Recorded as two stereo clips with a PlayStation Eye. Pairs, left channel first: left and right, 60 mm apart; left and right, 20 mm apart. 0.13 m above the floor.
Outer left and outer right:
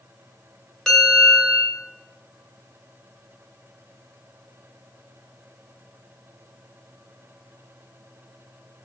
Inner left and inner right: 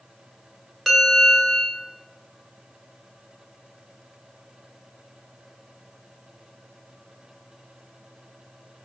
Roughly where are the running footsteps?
No running footsteps in this recording.